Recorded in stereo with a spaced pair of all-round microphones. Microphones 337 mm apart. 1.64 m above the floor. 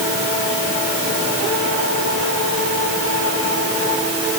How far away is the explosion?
I don't hear an explosion.